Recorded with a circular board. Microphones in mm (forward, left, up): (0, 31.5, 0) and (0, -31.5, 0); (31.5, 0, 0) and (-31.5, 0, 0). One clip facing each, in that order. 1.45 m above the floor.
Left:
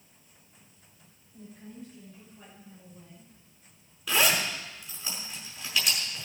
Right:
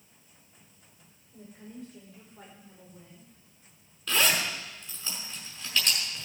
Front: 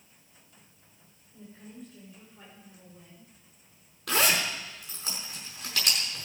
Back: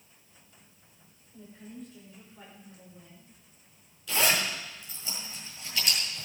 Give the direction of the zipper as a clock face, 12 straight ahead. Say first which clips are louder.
Left 1 dB, front 1 dB; 12 o'clock.